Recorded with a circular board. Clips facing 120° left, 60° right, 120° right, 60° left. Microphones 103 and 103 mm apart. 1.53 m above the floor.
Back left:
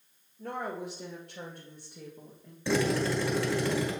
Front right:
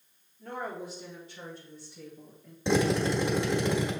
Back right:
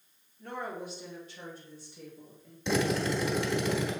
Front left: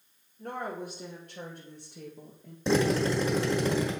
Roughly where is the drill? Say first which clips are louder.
Front right 2 dB, front left 3 dB; ahead.